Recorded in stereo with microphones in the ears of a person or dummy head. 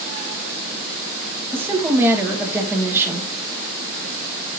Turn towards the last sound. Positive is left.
turn(degrees=-15)  # may be behind; listen again after turning